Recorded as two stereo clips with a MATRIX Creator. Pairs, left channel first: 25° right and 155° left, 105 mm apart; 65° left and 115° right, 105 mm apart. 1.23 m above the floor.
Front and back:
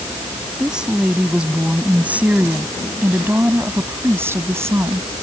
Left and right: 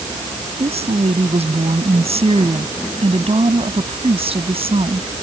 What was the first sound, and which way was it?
A woman speaking, 120° right.